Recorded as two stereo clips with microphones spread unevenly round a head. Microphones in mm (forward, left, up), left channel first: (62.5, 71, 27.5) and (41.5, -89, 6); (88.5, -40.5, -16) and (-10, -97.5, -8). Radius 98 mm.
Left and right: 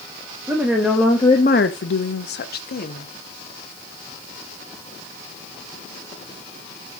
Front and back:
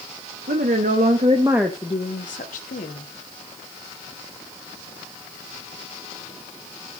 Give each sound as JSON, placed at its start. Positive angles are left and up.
{"t": 0.5, "sound": "a woman speaking", "azimuth_deg": 180, "distance_m": 1.3}